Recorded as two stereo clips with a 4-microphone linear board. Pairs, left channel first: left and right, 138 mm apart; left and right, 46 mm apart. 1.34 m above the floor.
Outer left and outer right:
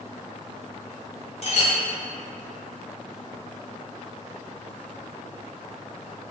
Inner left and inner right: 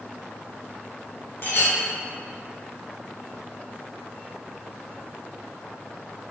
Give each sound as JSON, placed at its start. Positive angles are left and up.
{"t": 1.4, "sound": "a clink", "side_deg": 50, "distance_m": 0.7}